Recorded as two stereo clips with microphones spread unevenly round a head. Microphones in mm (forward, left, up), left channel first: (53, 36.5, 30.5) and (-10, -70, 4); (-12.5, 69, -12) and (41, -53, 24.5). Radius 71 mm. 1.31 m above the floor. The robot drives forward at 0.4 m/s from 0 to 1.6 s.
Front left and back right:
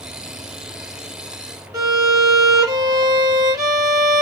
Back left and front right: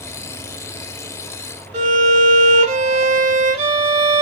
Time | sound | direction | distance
1.7 | a violin | 55° right | 1.8 m